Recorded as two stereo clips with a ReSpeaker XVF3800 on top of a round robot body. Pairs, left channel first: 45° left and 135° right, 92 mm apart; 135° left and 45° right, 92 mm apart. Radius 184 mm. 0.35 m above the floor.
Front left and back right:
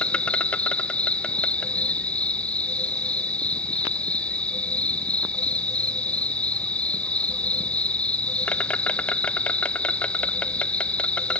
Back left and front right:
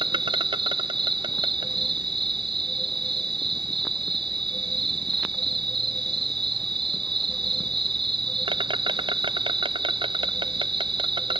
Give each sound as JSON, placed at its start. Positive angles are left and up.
{"t": 0.0, "sound": "an insect", "azimuth_deg": -30}